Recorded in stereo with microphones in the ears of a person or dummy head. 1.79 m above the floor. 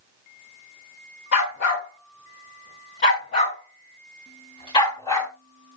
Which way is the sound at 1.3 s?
60° left (ahead or behind).